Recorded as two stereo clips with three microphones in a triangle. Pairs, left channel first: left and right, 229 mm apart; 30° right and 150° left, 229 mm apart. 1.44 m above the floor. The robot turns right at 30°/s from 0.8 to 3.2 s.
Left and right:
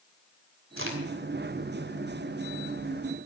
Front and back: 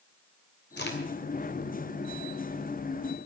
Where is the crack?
70° right, 3 m; by 1.0 s 65° right, 3 m.